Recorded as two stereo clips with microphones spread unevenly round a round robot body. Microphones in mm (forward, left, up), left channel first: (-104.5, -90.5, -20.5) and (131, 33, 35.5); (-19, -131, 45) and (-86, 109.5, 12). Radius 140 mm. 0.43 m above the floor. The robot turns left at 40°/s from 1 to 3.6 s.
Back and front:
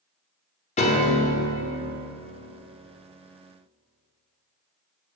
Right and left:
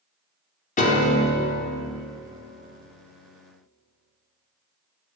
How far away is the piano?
About 0.8 m.